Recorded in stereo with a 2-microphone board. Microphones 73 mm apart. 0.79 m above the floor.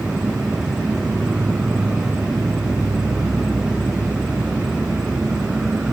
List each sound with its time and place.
0.0 s an insect: 10° right (ahead or behind)